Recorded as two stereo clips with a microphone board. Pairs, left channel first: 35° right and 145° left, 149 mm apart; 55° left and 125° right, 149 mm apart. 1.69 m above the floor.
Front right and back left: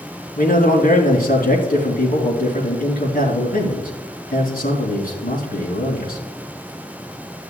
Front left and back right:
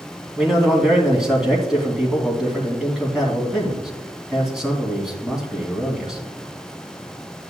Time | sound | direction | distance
0.4 | a man speaking | 40° right | 3 m